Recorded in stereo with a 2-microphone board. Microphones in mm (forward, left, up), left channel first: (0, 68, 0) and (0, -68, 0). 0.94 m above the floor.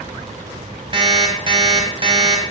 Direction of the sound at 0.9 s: 35° right (ahead or behind).